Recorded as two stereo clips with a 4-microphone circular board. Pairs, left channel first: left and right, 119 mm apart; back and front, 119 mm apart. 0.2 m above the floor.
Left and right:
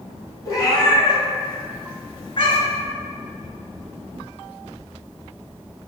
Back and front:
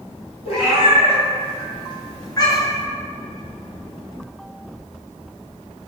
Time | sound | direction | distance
0.5 | a cat meowing | 150° left | 1.7 m